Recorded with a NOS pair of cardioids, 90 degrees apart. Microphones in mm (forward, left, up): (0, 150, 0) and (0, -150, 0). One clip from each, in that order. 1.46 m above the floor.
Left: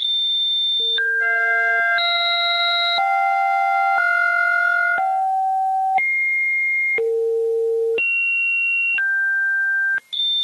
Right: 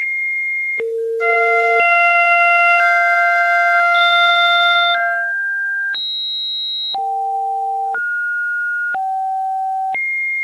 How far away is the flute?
About 1.1 m.